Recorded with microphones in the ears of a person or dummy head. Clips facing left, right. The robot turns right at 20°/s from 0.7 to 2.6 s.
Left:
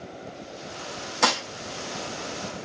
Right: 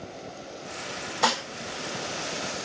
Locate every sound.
1.2 s dishes clattering: 60° left (ahead or behind), 1.2 m